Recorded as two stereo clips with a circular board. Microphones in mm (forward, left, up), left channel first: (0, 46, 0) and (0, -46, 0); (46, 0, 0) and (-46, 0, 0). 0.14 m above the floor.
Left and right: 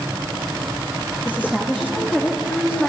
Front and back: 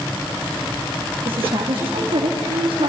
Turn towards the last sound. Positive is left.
turn(degrees=-170)